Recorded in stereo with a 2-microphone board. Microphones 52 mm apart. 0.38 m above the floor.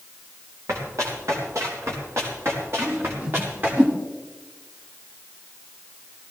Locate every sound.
0.7 s running footsteps: 70° right (ahead or behind), 5 m; by 3.8 s 40° right (ahead or behind), 4.5 m
2.8 s a whoosh: 35° right (ahead or behind), 2 m